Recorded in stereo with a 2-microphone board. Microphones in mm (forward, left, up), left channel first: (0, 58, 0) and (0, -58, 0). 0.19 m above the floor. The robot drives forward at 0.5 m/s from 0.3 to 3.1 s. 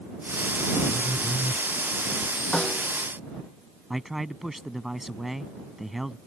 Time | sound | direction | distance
0.9 | a phone buzzing | 15° right (ahead or behind) | ?
2.5 | a snare drum | 5° left (ahead or behind) | ?
3.9 | a man speaking | centre (ahead or behind) | ?